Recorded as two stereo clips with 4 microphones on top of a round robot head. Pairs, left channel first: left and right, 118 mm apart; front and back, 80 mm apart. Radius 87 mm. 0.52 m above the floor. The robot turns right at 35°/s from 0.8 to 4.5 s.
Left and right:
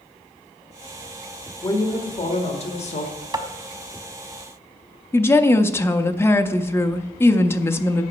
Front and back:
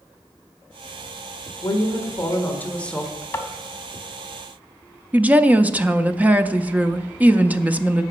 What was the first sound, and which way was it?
A woman speaking, 35° left.